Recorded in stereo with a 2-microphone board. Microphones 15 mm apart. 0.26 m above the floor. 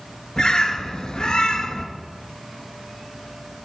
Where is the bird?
75° left (ahead or behind), 1.9 m.